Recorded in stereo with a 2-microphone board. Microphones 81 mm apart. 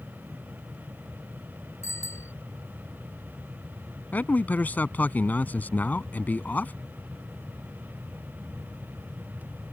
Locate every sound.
1.8 s a bicycle bell: 35° left (ahead or behind)
4.1 s a man speaking: 20° left (ahead or behind)